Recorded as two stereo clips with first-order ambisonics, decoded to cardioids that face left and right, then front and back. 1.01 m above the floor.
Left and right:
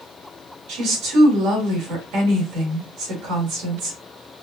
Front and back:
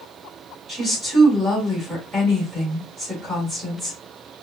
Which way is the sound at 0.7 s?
105° right.